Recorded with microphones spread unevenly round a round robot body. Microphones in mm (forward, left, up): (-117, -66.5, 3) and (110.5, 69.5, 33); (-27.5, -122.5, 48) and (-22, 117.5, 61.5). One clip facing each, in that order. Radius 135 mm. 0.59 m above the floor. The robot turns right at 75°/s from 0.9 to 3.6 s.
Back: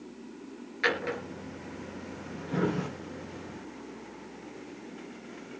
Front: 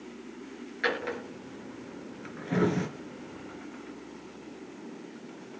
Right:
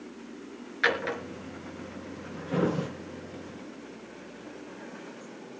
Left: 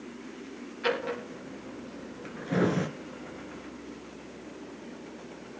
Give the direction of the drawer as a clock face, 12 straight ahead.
2 o'clock.